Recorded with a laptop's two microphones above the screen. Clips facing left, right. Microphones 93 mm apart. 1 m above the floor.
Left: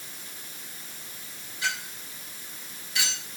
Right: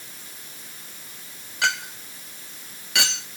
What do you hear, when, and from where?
1.6 s a clink: 90° right, 1.2 m